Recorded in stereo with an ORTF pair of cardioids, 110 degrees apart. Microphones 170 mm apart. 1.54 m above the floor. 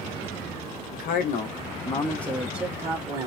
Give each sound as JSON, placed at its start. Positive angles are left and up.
{"t": 0.9, "sound": "a man speaking", "azimuth_deg": 65, "distance_m": 1.1}